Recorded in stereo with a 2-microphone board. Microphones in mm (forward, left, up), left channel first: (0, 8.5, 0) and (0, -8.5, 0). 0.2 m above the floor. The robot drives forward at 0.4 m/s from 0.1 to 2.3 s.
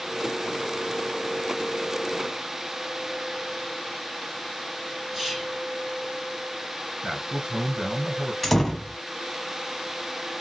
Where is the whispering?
25° right (ahead or behind), 2.5 m.